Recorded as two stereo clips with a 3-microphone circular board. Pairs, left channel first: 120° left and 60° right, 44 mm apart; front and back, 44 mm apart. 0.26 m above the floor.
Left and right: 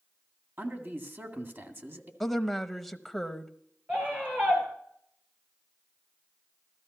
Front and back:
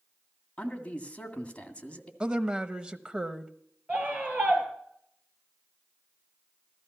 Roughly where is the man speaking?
Ahead right.